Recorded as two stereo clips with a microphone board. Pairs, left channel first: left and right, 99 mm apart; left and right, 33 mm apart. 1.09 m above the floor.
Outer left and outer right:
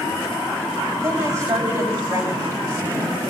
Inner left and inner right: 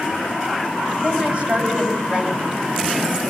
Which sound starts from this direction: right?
A woman speaking, at 1.0 s.